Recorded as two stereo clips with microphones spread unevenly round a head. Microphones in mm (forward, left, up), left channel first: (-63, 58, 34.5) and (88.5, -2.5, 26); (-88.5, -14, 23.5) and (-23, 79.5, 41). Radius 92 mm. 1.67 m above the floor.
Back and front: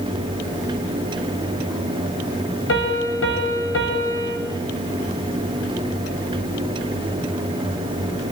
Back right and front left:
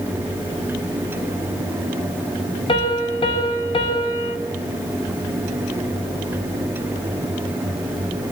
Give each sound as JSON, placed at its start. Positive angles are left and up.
{"t": 2.7, "sound": "a piano", "azimuth_deg": -175, "distance_m": 7.0}